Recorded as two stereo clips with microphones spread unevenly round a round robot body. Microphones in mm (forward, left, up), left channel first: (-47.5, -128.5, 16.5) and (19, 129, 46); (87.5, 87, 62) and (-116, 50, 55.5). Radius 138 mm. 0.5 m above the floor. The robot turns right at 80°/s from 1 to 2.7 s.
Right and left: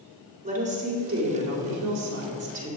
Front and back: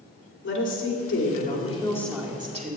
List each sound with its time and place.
0.4 s a woman speaking: 10° left, 2.5 m; by 2.8 s 150° left, 2.5 m